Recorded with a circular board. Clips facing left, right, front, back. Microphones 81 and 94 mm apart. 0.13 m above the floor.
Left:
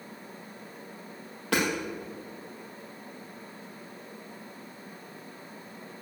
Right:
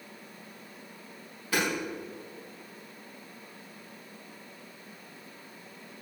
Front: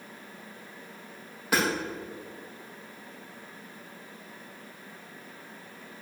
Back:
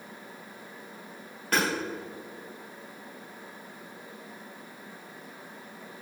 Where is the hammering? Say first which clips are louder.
Left 2 dB, even; 80° left, 4.5 m.